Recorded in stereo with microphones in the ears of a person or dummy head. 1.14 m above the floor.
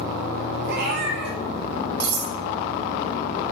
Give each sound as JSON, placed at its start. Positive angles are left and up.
{"t": 0.6, "sound": "a cat meowing", "side_deg": -50, "distance_m": 1.6}
{"t": 2.0, "sound": "cutlery clinking", "side_deg": -60, "distance_m": 5.5}